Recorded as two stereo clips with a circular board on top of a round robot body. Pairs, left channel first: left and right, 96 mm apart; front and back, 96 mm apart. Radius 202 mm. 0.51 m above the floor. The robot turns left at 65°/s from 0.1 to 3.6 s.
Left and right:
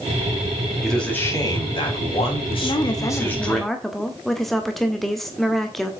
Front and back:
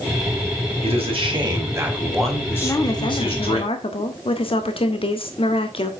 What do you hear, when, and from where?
0.8 s a man speaking: straight behind, 4.5 m; by 3.6 s straight ahead, 4.5 m
2.6 s a woman speaking: 65° left, 1.8 m; by 5.9 s straight ahead, 1.8 m